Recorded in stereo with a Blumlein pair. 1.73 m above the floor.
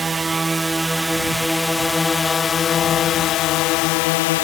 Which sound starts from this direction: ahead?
A drone, at 0.0 s.